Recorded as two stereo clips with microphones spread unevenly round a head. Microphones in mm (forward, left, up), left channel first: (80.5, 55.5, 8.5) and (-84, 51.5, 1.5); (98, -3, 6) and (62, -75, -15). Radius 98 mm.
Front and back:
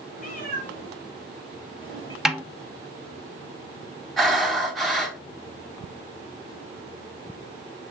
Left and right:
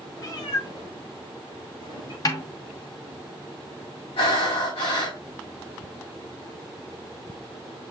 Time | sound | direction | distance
0.2 | a cat meowing | 30° left | 3.5 m
2.2 | a snare drum | 95° left | 1.1 m
4.2 | breathing | 90° left | 4 m